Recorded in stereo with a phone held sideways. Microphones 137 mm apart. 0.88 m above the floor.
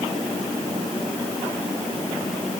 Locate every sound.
Only background noise.